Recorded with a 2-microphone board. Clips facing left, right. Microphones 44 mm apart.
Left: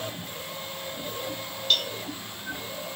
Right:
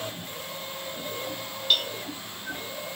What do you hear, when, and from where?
1.7 s a cowbell: 5° right (ahead or behind)